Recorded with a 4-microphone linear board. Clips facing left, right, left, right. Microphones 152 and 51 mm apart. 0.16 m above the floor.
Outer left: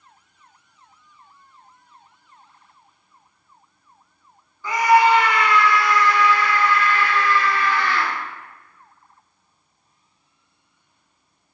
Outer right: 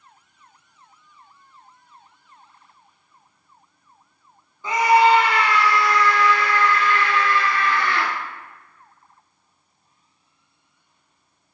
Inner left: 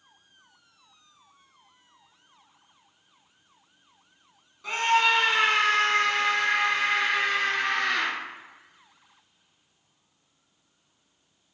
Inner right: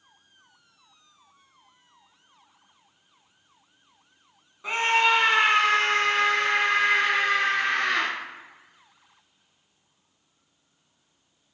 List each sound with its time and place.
4.6 s a scream: 20° right (ahead or behind), 1.3 m; by 8.1 s 45° right (ahead or behind), 2.5 m